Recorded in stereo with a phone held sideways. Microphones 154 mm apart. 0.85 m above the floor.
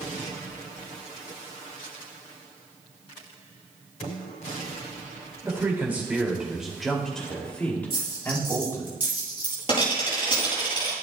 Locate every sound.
5.4 s a man speaking: 20° right (ahead or behind), 2.5 m; by 8.9 s 20° left (ahead or behind), 3 m
7.9 s a dropped coin: 40° left (ahead or behind), 5.5 m